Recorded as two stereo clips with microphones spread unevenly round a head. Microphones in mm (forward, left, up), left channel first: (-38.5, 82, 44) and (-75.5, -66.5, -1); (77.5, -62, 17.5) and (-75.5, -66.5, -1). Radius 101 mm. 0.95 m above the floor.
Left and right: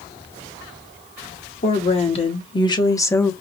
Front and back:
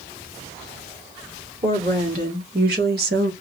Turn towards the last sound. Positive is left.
turn(degrees=160)